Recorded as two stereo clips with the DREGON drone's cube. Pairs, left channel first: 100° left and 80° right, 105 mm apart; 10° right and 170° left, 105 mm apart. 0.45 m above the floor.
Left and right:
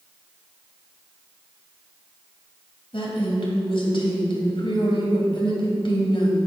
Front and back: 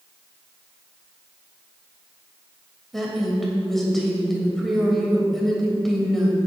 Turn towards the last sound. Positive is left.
turn(degrees=75)